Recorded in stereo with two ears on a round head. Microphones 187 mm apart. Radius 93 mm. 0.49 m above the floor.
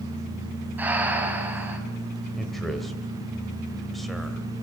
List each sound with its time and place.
0.8 s breathing: 10° right (ahead or behind), 4 m
2.3 s a man speaking: centre (ahead or behind), 1.9 m